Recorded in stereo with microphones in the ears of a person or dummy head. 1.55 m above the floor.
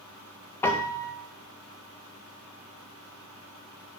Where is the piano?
20° left (ahead or behind), 0.6 m.